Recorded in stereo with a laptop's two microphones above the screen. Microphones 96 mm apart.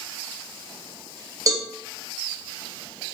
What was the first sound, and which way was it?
A cowbell, 35° right (ahead or behind).